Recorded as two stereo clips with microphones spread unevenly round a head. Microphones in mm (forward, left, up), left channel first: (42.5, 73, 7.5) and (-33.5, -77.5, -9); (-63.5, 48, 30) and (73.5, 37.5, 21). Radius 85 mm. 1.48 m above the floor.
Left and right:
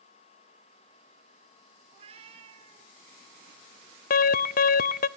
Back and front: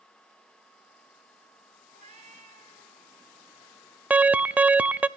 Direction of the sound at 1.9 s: 60° right.